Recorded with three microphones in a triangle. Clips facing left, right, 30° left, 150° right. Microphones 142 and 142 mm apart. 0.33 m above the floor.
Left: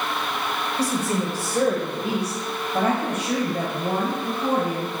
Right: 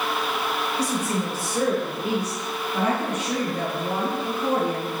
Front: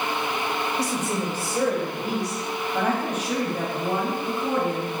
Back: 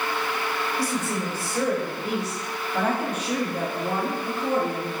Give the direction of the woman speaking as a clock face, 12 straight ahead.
9 o'clock.